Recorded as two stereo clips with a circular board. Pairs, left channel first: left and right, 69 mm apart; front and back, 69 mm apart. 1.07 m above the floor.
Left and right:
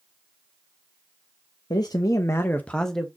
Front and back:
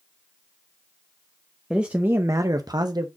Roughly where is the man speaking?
Left.